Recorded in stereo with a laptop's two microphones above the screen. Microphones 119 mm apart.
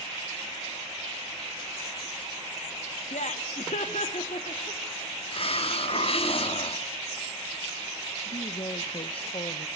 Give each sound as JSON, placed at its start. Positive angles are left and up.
{"t": 3.1, "sound": "laughter", "side_deg": 70, "distance_m": 1.1}
{"t": 5.3, "sound": "a hiss", "side_deg": 55, "distance_m": 1.7}
{"t": 8.2, "sound": "a woman speaking", "side_deg": 50, "distance_m": 1.1}